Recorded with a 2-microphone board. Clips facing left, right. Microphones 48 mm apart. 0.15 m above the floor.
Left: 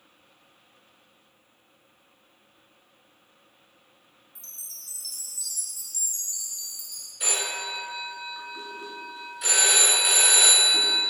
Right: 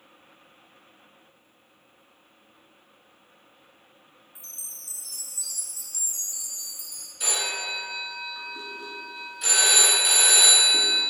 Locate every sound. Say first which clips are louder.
4.3 s a chime: right 1 dB; 20° right (ahead or behind), 0.7 m
7.2 s a phone ringing: right 1 dB; 5° left (ahead or behind), 1.3 m